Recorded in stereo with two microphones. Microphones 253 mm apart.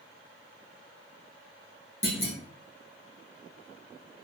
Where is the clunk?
55° left (ahead or behind), 1.3 m.